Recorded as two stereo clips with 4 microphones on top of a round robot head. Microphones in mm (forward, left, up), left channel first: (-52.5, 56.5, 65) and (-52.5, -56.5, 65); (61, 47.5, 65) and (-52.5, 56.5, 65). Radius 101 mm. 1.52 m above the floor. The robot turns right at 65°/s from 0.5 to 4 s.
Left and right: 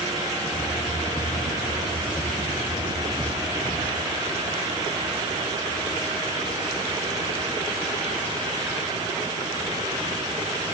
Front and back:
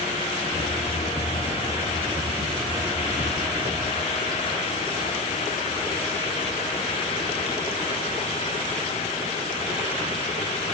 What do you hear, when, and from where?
Only background noise.